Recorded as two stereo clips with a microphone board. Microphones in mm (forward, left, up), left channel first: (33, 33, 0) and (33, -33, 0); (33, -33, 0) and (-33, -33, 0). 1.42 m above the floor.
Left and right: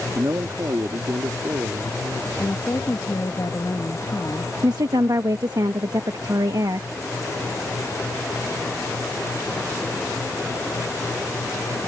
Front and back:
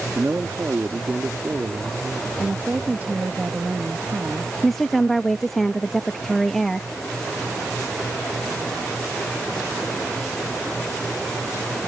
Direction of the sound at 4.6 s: 85° right.